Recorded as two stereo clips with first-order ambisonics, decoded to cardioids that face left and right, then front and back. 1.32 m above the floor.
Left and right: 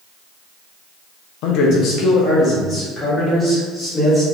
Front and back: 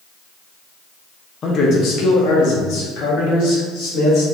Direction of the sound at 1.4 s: 65° left.